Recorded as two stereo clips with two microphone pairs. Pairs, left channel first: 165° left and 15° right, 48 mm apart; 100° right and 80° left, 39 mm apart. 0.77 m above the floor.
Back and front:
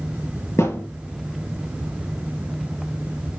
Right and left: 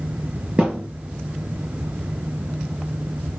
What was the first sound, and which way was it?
A thud, 140° left.